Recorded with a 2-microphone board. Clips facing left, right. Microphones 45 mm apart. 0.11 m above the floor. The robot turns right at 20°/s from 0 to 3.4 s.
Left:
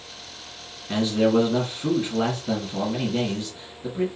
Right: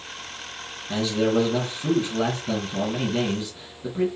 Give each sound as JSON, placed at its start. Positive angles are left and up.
{"t": 0.9, "sound": "a man speaking", "azimuth_deg": 145, "distance_m": 2.0}